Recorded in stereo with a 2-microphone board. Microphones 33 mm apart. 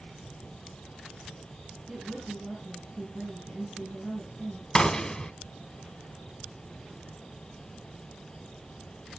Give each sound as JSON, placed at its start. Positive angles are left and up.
{"t": 1.9, "sound": "a woman speaking", "side_deg": -30, "distance_m": 5.5}
{"t": 4.8, "sound": "a gunshot", "side_deg": 20, "distance_m": 1.4}